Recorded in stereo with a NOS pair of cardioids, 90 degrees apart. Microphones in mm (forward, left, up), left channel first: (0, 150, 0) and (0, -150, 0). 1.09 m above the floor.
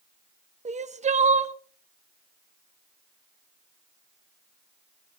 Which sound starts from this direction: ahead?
Crying, at 0.7 s.